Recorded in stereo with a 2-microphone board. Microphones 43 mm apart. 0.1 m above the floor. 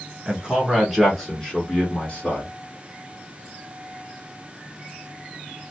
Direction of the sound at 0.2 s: 25° right (ahead or behind).